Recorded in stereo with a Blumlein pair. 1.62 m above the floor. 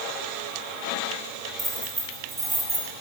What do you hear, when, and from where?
1.6 s keys jangling: 10° right, 6 m; by 2.9 s 15° right, 5.5 m